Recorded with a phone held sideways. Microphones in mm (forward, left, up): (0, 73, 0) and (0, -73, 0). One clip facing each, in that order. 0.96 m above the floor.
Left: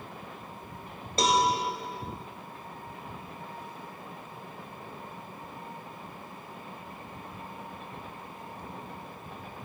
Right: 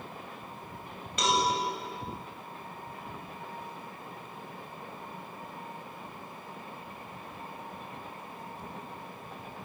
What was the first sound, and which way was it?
A cowbell, 35° left (ahead or behind).